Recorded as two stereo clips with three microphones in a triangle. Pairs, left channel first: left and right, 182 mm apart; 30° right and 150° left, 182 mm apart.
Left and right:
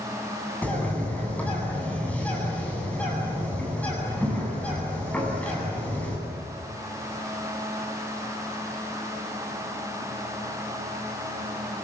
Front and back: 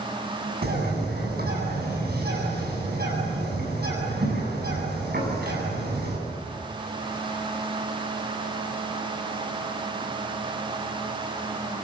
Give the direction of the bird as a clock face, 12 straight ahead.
6 o'clock.